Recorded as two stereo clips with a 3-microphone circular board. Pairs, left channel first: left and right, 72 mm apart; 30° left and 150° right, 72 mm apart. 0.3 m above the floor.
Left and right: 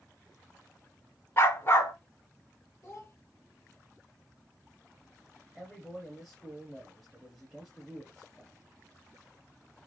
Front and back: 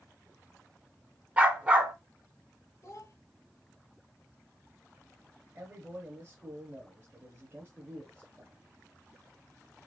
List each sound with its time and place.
1.4 s a dog barking: 140° left, 0.9 m
2.8 s a child speaking: 50° left, 0.7 m
5.5 s a man speaking: straight behind, 1.0 m